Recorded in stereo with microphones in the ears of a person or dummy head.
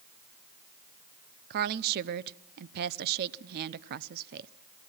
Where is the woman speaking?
55° right (ahead or behind), 0.7 m.